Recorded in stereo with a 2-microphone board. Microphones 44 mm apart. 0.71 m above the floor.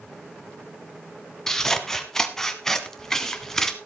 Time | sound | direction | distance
1.5 | scissors | 10° left (ahead or behind) | 1.1 m